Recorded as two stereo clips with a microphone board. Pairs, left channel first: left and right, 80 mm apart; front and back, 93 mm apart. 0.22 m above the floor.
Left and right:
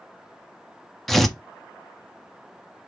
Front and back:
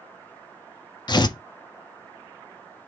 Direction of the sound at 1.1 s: 5° left.